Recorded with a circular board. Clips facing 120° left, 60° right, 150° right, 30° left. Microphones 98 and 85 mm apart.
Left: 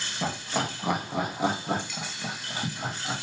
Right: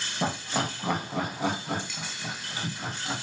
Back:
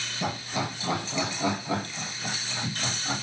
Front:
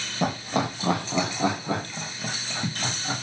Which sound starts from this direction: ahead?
Laughter, at 0.2 s.